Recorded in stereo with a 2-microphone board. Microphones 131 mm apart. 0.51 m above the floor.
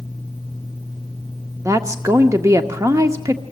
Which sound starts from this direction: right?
A woman speaking, at 1.6 s.